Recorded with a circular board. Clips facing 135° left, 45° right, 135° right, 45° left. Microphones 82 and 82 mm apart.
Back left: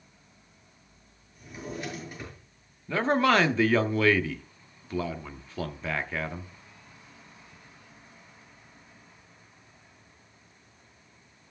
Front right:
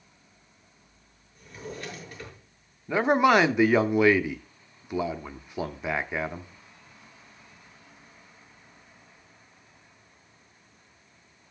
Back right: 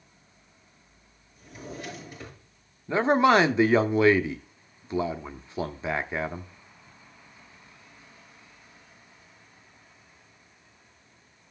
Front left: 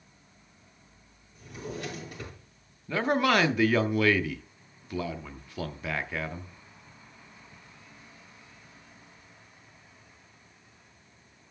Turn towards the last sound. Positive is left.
turn(degrees=-100)